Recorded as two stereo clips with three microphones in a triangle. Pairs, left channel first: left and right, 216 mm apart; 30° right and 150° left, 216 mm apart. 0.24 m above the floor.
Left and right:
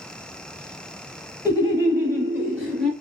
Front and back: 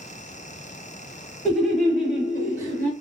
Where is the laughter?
40° left, 1.2 m; by 2.9 s 155° left, 1.2 m.